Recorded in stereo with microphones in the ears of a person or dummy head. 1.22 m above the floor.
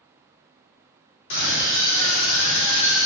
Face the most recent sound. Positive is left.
turn(degrees=75)  # may be behind; listen again after turning